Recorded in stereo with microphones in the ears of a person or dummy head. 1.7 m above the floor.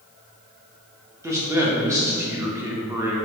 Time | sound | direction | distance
1.2 | a man speaking | 10° right (ahead or behind) | 0.6 m